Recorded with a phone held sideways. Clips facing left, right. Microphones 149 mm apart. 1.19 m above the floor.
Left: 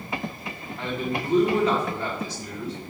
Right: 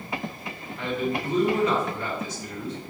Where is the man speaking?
35° left (ahead or behind), 3 m.